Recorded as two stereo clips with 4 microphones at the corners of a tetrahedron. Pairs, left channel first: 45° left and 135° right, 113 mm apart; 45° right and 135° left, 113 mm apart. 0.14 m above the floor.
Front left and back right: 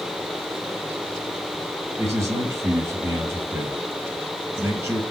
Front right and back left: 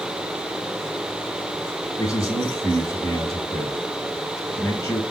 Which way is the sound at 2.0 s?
85° right.